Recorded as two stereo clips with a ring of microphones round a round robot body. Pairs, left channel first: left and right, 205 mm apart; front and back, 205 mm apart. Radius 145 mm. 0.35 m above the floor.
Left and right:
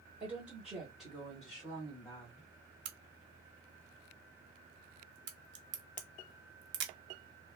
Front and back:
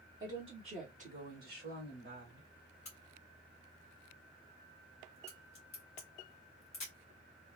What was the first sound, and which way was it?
A woman speaking, 155° right.